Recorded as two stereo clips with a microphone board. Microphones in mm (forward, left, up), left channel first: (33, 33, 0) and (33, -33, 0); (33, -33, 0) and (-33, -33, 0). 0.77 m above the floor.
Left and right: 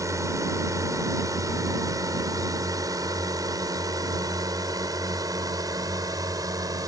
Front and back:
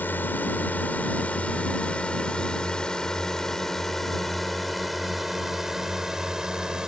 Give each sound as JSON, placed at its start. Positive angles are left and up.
{"t": 0.0, "sound": "a drone", "azimuth_deg": -60}